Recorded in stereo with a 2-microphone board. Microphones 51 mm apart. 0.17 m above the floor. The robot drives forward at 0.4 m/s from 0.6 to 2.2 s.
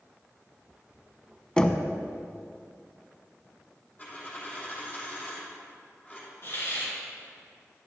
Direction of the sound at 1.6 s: 15° left (ahead or behind).